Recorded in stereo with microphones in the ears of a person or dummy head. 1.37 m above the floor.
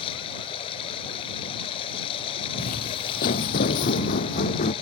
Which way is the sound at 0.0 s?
30° left (ahead or behind).